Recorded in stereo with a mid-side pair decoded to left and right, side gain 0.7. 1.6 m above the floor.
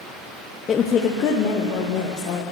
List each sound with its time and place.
0.7 s a woman speaking: 30° left, 1.0 m; by 2.4 s 60° left, 3 m